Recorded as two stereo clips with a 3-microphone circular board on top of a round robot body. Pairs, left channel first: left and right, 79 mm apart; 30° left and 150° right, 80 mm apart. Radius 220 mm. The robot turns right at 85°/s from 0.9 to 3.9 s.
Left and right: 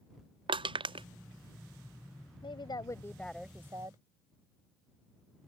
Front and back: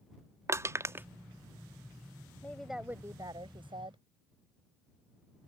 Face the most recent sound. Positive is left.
turn(degrees=-135)